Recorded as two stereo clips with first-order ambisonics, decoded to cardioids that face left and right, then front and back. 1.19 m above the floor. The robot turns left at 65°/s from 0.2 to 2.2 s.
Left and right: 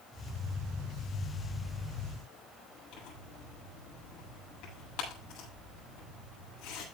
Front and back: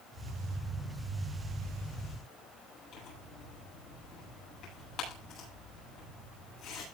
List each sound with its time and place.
2.9 s tearing paper: 55° left, 8.5 m